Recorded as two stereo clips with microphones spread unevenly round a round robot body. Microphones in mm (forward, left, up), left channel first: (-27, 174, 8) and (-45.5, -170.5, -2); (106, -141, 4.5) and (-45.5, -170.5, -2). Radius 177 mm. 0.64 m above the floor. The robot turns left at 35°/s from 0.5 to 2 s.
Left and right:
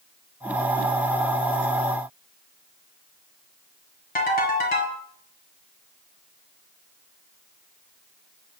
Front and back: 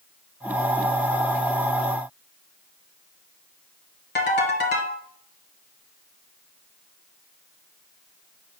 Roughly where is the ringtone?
Ahead.